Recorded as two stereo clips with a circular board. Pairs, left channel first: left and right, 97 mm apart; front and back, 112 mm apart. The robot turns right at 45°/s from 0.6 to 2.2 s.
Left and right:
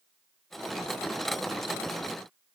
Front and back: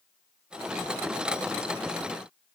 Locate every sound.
Only background noise.